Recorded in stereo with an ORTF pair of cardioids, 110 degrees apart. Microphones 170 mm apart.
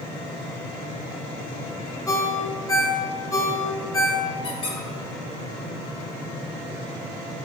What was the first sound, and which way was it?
A ringtone, 20° left.